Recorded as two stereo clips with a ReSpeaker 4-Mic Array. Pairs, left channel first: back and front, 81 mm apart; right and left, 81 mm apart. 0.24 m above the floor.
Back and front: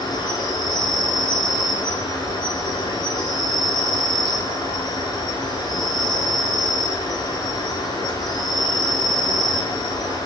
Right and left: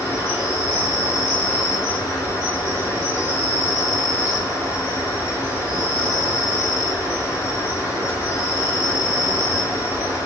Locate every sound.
0.0 s an insect: 140° right, 3 m